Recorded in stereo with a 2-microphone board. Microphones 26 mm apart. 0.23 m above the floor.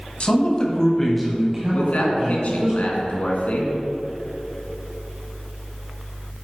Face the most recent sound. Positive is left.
turn(degrees=60)  # may be behind; listen again after turning